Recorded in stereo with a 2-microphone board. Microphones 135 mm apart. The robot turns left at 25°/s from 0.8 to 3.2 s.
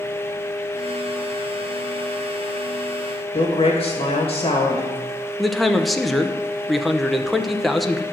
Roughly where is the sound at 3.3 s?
Left.